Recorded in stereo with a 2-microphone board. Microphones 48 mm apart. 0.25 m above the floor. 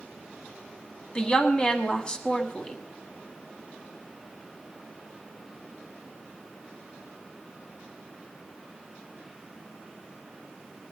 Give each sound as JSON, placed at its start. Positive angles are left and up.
{"t": 1.1, "sound": "a woman speaking", "side_deg": 20, "distance_m": 1.5}